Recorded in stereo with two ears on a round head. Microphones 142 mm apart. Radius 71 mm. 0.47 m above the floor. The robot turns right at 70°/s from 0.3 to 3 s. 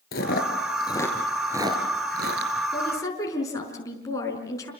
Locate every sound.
0.1 s chewing: 70° left (ahead or behind), 3 m; by 2.5 s 85° right, 3 m
2.7 s a woman speaking: centre (ahead or behind), 5 m; by 4.7 s 20° left (ahead or behind), 5 m